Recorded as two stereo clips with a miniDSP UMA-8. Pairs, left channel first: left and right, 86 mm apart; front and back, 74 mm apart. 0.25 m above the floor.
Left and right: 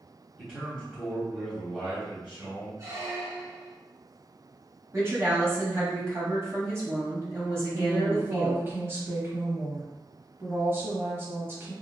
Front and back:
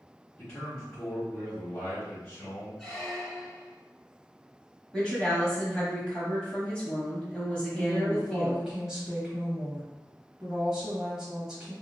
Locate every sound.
0.4 s a man speaking: 30° right, 1.3 m
2.8 s a squeak: 80° right, 1.0 m
4.9 s a woman speaking: 65° right, 1.3 m
7.7 s a woman speaking: 110° right, 1.2 m